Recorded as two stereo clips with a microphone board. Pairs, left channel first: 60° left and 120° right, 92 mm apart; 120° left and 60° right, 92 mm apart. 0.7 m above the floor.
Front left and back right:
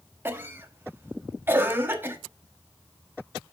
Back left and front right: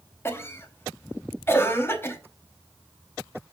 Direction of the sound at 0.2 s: Straight behind.